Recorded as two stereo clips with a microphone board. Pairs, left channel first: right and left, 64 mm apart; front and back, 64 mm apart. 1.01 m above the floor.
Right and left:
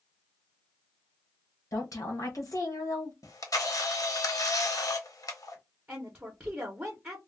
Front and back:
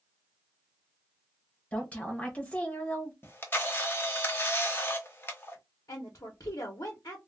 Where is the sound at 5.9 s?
25° left, 0.7 m.